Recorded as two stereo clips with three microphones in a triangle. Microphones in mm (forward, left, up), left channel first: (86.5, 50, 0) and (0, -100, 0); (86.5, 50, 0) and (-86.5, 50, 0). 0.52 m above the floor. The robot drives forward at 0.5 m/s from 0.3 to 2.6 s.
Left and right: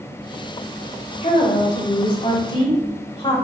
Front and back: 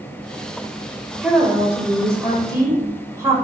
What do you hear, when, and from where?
1.2 s a woman speaking: 95° left, 2.5 m; by 3.4 s 110° left, 2.5 m